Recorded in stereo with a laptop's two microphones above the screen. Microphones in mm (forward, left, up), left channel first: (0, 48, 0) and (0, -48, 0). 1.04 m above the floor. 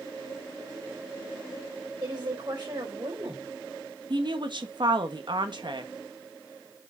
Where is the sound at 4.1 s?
55° right (ahead or behind), 1.8 m.